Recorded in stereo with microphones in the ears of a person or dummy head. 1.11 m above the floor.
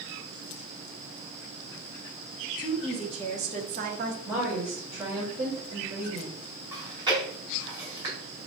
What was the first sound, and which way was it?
A woman speaking, 20° right (ahead or behind).